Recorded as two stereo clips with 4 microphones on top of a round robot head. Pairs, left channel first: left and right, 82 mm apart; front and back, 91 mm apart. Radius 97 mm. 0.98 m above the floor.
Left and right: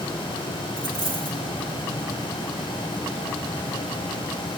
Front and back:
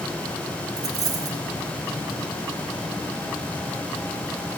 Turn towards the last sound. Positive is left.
turn(degrees=135)